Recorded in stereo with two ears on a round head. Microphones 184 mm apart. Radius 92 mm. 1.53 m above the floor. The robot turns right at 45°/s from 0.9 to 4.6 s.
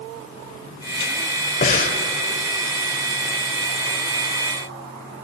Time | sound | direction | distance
1.6 | breathing | 40° left (ahead or behind) | 1.6 m